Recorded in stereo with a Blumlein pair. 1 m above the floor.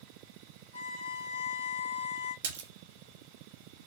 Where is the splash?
55° right, 1.0 m.